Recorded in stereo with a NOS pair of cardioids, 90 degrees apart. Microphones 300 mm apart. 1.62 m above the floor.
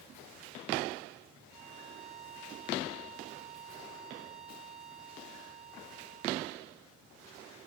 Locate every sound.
1.5 s a violin: 15° right, 3.5 m